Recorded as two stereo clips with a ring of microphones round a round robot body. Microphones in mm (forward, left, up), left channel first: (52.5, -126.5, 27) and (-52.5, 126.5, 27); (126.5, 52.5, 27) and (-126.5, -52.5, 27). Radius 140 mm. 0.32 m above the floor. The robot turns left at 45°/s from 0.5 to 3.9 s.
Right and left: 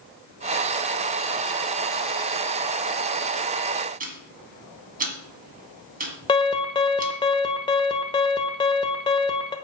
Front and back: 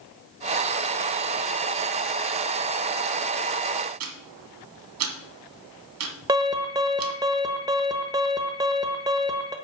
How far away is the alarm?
About 1.2 m.